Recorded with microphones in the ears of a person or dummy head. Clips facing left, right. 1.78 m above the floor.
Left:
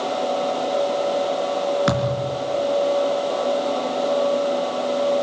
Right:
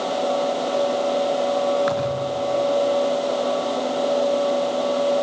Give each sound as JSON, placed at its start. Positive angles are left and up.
{"t": 1.9, "sound": "a thud", "side_deg": 55, "distance_m": 4.5}